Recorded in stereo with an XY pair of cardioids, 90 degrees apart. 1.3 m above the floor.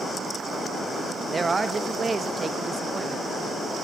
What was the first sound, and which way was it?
A man speaking, 30° right.